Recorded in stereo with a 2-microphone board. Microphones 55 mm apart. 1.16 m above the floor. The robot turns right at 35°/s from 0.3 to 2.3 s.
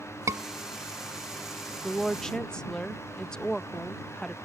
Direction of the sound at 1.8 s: 5° right (ahead or behind).